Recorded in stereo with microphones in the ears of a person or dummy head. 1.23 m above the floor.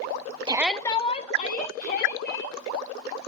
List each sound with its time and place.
0.5 s a shout: 25° right (ahead or behind), 0.6 m; by 2.6 s 55° left (ahead or behind), 2.5 m